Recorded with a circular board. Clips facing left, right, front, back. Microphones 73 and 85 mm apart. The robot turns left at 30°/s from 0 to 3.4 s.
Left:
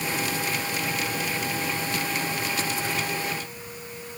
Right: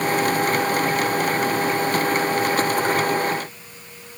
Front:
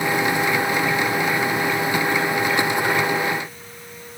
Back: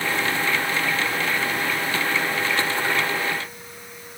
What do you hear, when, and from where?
Only background noise.